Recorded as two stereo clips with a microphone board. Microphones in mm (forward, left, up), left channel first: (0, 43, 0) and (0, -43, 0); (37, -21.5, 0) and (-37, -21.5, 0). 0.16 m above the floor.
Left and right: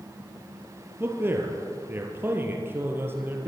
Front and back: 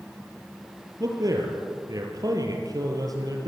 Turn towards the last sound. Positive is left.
turn(degrees=-155)